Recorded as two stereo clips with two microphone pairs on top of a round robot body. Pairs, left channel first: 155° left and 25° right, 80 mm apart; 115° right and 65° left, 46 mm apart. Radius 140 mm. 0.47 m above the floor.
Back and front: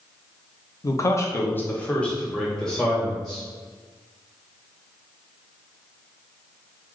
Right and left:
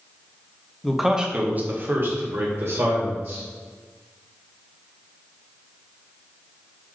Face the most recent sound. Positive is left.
turn(degrees=65)